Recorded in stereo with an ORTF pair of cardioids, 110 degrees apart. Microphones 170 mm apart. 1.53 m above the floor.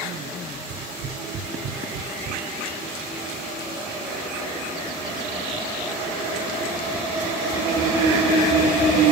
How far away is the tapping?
About 4.5 m.